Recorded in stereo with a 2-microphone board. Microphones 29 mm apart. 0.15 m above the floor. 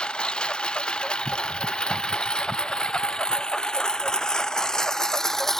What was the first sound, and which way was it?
A lawn mower, 35° left (ahead or behind).